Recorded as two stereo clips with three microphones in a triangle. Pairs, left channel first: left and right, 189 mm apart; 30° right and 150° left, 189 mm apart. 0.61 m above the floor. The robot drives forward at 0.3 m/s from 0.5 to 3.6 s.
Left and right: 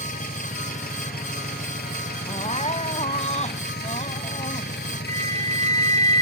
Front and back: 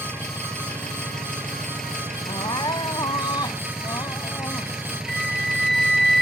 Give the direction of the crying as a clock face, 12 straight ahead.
11 o'clock.